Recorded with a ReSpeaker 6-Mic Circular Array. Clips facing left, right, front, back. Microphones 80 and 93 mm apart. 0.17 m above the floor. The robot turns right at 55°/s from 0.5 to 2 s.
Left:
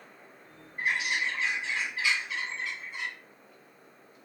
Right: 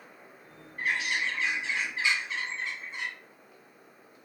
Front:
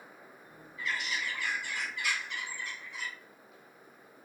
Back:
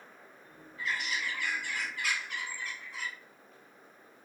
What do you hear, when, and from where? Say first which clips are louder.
0.8 s a bird: even, back 1 dB; 145° left, 1.8 m; by 3.1 s 150° right, 1.8 m